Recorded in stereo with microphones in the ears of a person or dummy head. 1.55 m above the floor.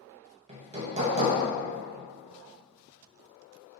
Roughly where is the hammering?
Right.